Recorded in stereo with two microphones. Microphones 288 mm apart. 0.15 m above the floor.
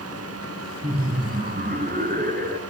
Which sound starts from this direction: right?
Laughter, at 0.8 s.